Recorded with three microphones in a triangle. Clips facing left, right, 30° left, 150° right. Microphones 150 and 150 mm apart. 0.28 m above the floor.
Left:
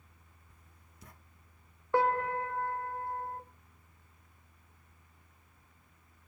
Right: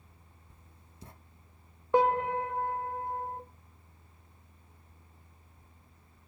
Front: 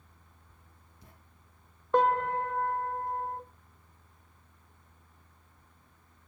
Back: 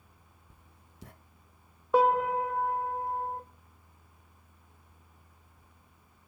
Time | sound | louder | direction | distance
0.5 | writing | right 4 dB, back 1 dB | 155° right | 0.6 m
1.9 | a piano | right 3 dB, back 2 dB | 75° right | 0.5 m